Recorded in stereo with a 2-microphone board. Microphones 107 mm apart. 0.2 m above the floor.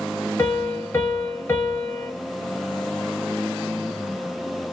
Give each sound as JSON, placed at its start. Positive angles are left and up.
{"t": 0.4, "sound": "a piano", "side_deg": 20, "distance_m": 1.1}